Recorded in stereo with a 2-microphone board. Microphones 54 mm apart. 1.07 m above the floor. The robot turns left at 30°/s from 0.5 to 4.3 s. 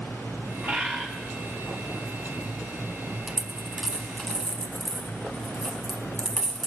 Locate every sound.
0.6 s a bird: 50° right (ahead or behind), 5 m; by 1.1 s 65° right (ahead or behind), 5 m
3.3 s a dropped coin: 15° right (ahead or behind), 1.2 m; by 6.7 s 10° left (ahead or behind), 1.2 m